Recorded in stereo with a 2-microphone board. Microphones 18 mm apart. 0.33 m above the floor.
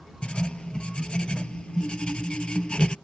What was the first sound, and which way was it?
Writing, 85° left.